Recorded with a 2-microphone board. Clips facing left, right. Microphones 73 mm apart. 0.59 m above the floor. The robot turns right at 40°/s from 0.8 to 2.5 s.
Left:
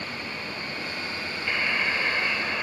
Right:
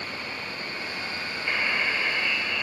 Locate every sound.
1.5 s a buzzer: 5° right; by 2.6 s 35° left